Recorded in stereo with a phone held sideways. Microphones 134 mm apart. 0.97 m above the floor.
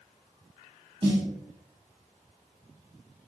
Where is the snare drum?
40° right (ahead or behind), 1.9 m.